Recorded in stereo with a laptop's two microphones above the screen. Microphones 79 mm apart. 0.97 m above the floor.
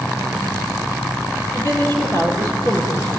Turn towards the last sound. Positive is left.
turn(degrees=40)  # may be behind; listen again after turning